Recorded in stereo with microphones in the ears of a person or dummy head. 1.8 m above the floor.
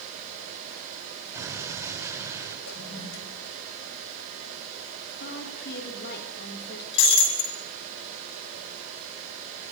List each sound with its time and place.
1.3 s an explosion: 15° right (ahead or behind), 5 m
2.7 s a toilet flushing: 75° left (ahead or behind), 4 m
5.2 s a woman speaking: 60° left (ahead or behind), 4 m
6.9 s breaking glass: 80° left, 6 m